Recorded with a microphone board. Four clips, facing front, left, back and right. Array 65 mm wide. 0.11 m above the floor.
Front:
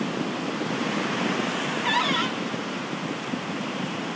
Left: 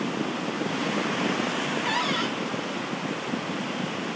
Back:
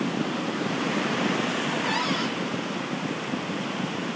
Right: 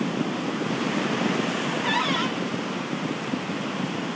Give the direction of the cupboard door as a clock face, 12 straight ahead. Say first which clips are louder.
Right 3 dB, front 2 dB; 1 o'clock.